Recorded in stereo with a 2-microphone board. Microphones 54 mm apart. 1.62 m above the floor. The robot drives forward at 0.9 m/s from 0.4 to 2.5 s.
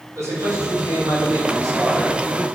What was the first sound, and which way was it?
A man speaking, 55° right (ahead or behind).